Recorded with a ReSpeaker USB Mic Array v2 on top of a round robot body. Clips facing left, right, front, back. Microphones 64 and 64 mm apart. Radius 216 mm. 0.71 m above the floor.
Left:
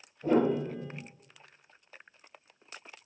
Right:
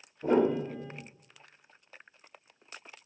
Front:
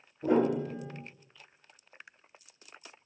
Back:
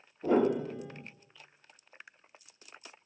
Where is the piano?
30° right, 1.2 m.